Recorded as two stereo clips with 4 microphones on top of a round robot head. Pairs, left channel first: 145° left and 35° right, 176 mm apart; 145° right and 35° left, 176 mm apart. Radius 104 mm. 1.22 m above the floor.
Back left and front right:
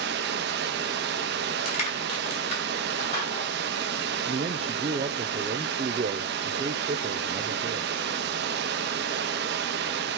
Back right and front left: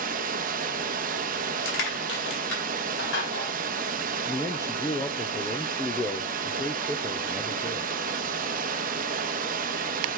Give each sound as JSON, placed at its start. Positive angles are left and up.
{"t": 0.0, "sound": "running water", "azimuth_deg": -5, "distance_m": 0.9}
{"t": 1.6, "sound": "crushing", "azimuth_deg": -160, "distance_m": 5.0}
{"t": 4.2, "sound": "a man speaking", "azimuth_deg": -80, "distance_m": 0.8}